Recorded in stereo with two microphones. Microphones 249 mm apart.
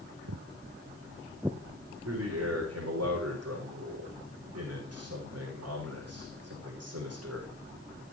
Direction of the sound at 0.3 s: 85° right.